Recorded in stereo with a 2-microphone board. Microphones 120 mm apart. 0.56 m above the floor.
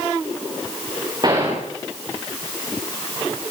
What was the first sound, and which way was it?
A gunshot, 35° right (ahead or behind).